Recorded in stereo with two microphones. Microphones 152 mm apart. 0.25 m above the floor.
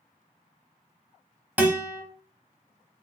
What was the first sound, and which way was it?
A guitar, 10° right (ahead or behind).